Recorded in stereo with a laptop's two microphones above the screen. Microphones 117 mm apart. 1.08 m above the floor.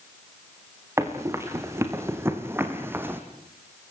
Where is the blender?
No blender in this recording.